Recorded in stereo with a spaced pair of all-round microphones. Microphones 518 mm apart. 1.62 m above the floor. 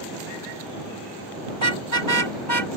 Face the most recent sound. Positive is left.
turn(degrees=-60)  # may be behind; listen again after turning